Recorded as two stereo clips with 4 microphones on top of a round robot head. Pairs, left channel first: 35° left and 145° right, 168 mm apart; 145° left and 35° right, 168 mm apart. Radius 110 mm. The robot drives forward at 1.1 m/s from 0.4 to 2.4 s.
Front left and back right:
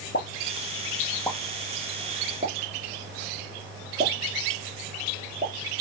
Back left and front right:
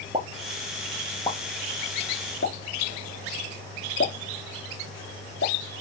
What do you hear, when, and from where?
0.1 s a pop: 25° left, 1.3 m; by 5.5 s 165° left, 1.6 m